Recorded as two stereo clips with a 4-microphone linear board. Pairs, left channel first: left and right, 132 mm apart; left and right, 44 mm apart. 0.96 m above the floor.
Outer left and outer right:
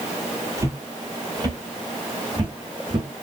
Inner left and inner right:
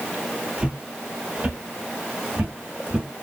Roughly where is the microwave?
I don't hear a microwave.